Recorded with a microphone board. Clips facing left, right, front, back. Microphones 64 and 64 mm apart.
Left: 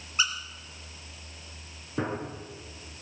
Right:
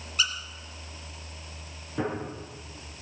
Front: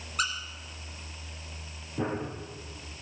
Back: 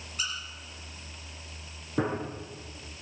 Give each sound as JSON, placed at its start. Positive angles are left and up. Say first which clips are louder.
{"t": 0.2, "sound": "a squeak", "louder": "left 1 dB, front 6 dB", "azimuth_deg": 25, "distance_m": 1.8}
{"t": 2.0, "sound": "a gunshot", "louder": "right 1 dB, back 2 dB", "azimuth_deg": 165, "distance_m": 6.0}